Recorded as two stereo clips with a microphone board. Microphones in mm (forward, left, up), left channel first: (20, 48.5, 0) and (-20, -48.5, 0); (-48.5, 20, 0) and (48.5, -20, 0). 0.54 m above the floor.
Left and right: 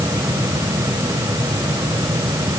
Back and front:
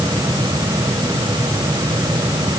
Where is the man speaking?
I don't hear a man speaking.